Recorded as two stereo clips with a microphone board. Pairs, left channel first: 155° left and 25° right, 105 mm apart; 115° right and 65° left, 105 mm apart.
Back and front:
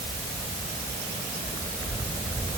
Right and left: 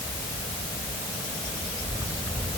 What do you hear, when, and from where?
Only background noise.